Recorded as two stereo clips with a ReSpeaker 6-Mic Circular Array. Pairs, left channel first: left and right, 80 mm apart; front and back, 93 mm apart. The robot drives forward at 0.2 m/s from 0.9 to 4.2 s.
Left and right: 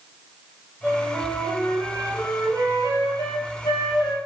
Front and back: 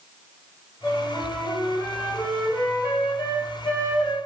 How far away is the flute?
About 2 m.